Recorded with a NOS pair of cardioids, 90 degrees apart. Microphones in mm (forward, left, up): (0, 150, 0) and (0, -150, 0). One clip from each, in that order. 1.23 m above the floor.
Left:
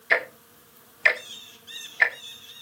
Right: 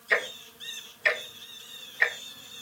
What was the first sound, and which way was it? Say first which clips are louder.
Ticking: left 3 dB; 45° left.